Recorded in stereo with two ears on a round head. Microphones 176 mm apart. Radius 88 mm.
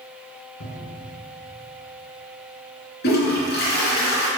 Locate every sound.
0.6 s a cupboard door: 75° left (ahead or behind), 2.0 m
3.0 s a toilet flushing: 55° left (ahead or behind), 3 m